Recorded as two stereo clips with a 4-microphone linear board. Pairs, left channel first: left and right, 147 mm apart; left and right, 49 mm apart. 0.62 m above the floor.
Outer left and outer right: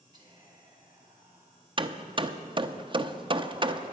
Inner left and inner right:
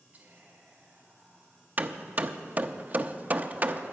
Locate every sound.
0.1 s whispering: 30° right (ahead or behind), 4 m
1.8 s hammering: 35° right (ahead or behind), 0.5 m